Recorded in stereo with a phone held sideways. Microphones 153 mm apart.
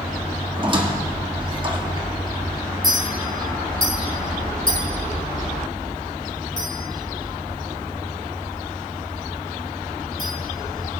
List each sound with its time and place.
0.6 s a squeak: 30° right (ahead or behind), 1.3 m
2.8 s a clink: 70° right (ahead or behind), 5 m